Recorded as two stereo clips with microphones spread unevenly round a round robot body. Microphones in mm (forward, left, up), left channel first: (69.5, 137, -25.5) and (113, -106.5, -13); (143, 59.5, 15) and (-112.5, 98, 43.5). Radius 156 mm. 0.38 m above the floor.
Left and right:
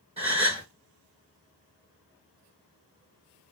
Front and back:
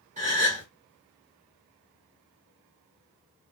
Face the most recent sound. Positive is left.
turn(degrees=-140)